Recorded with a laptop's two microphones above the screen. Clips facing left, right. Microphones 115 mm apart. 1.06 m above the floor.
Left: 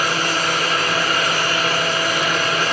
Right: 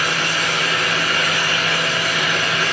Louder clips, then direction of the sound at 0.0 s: Left 2 dB; 40° left (ahead or behind).